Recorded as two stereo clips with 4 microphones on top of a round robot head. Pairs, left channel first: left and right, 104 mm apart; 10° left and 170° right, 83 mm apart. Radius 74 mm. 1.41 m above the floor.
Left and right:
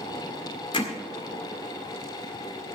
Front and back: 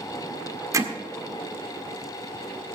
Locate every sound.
0.7 s hammering: 145° left, 1.7 m